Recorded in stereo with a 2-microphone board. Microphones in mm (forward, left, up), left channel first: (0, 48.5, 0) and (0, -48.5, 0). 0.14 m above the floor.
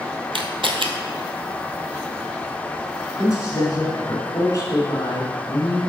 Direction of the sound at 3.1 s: 35° left (ahead or behind).